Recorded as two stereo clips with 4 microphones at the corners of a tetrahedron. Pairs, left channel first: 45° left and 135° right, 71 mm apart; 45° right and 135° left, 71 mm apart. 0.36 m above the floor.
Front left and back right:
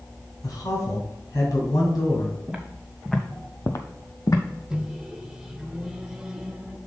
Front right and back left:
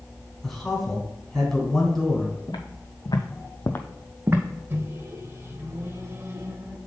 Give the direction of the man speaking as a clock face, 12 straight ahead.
11 o'clock.